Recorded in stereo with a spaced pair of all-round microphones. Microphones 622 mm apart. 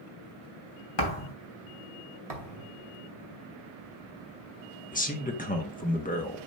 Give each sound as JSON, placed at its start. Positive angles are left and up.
{"t": 1.0, "sound": "a thud", "side_deg": 40, "distance_m": 2.0}
{"t": 2.3, "sound": "a thud", "side_deg": -70, "distance_m": 2.0}
{"t": 4.9, "sound": "a man speaking", "side_deg": 15, "distance_m": 1.3}